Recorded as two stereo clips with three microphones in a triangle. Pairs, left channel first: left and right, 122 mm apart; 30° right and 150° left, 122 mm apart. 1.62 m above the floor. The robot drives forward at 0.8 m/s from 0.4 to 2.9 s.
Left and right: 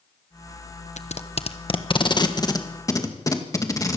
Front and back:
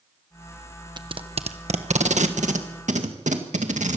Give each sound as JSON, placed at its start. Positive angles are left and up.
{"t": 1.0, "sound": "tape being pulled", "azimuth_deg": 100, "distance_m": 1.0}